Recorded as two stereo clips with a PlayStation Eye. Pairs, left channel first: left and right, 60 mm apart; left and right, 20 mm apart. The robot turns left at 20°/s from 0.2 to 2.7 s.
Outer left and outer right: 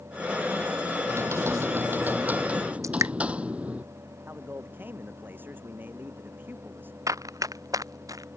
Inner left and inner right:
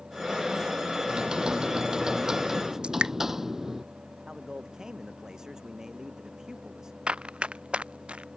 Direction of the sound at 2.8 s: 65° right (ahead or behind).